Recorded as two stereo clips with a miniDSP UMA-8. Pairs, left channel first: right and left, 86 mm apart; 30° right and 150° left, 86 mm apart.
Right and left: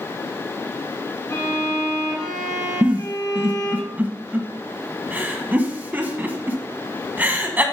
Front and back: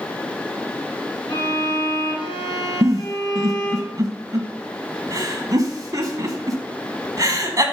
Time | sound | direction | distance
1.3 | a violin | 45° right | 3 m
2.8 | a giggle | 150° left | 1.3 m